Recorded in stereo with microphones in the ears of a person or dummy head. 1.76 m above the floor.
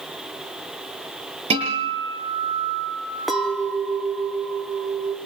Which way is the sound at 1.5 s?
35° right (ahead or behind).